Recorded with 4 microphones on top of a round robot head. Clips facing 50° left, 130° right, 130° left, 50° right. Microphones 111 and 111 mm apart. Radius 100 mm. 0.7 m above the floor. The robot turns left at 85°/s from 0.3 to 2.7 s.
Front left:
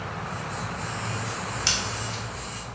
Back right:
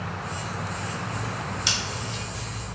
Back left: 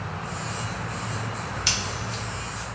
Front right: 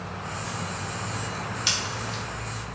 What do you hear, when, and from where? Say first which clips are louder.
1.7 s scissors: even, even; 160° left, 1.5 m; by 2.2 s 110° left, 1.5 m